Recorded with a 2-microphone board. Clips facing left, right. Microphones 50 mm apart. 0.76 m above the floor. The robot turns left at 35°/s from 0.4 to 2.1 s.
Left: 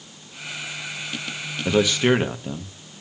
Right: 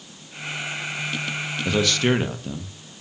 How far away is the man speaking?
About 1.1 m.